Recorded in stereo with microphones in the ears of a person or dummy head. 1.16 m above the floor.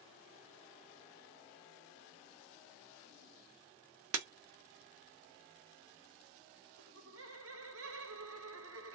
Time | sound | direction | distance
4.1 | breaking glass | 75° right (ahead or behind) | 1.1 m
6.8 | laughter | 80° right | 1.1 m